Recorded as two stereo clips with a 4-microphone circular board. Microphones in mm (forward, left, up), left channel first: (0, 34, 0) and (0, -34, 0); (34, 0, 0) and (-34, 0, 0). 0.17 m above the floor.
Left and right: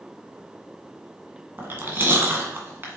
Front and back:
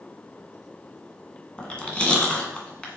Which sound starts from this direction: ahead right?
Chewing, at 1.6 s.